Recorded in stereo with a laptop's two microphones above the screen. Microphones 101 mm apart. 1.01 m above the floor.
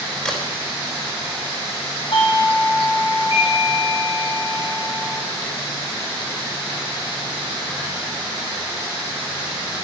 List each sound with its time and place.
0.2 s a crack: 10° left (ahead or behind), 3.5 m
2.1 s a doorbell: 60° left (ahead or behind), 3 m